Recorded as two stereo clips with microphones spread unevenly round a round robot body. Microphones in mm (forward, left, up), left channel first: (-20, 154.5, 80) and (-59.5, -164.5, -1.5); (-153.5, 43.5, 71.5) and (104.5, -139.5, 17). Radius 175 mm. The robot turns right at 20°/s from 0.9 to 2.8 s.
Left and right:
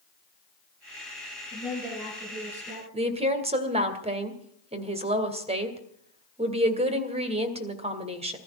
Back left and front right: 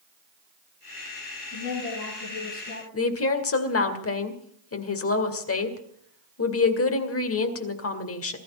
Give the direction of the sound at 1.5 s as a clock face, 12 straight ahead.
6 o'clock.